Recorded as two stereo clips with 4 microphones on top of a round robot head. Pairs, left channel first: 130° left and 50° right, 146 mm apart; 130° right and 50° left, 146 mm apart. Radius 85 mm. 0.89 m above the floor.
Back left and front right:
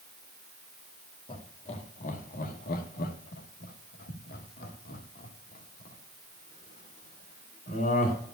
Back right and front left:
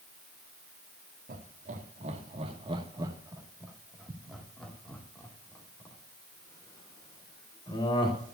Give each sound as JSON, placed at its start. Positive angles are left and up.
{"t": 1.3, "sound": "laughter", "azimuth_deg": 80, "distance_m": 1.7}